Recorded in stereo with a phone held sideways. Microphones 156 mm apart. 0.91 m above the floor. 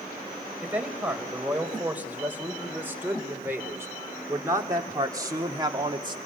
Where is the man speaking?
10° right (ahead or behind), 4.5 m; by 6.2 s 30° right (ahead or behind), 1.9 m.